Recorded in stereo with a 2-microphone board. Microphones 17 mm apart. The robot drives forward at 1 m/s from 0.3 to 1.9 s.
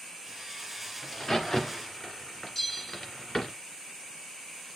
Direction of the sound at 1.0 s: 35° left (ahead or behind).